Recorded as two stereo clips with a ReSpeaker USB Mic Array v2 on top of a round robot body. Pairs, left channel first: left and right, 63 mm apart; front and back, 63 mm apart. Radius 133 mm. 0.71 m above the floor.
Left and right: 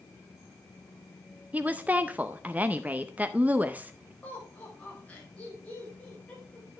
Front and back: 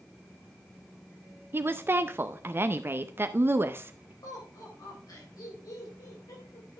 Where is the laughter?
20° left, 4 m.